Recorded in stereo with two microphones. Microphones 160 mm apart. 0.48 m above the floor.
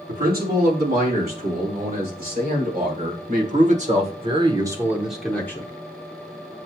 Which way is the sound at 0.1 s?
75° right (ahead or behind).